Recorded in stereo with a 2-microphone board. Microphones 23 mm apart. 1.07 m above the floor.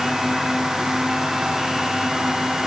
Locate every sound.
Only background noise.